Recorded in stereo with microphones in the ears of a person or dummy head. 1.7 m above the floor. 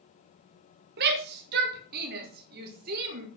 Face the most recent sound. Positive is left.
turn(degrees=-50)  # may be behind; listen again after turning